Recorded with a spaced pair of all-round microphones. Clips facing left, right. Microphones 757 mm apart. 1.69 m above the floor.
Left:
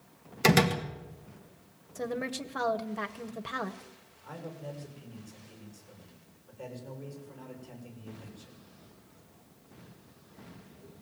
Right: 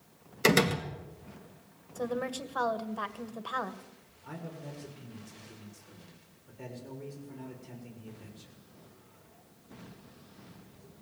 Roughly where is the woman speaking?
Left.